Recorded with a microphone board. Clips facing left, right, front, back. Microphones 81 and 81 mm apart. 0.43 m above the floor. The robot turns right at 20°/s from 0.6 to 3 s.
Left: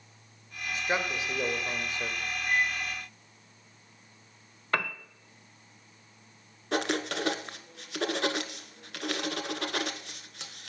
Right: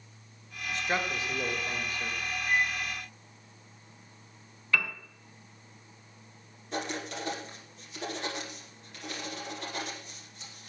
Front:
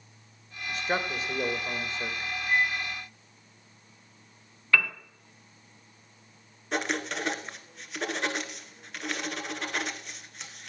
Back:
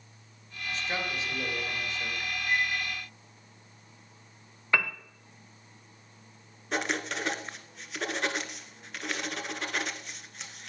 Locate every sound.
0.7 s a man speaking: 15° left, 1.7 m; by 2.2 s 45° left, 1.7 m
2.5 s a microwave: 140° left, 7 m; by 2.8 s 145° left, 7 m
4.7 s a piano: 120° left, 1.1 m
6.7 s writing: 90° left, 1.0 m